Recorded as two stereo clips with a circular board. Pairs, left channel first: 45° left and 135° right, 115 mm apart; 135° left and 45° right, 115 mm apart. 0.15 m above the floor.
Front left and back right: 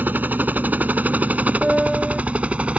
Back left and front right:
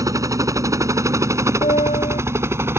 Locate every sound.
0.0 s a helicopter: 75° right; by 2.8 s 70° right
1.6 s a piano: 140° left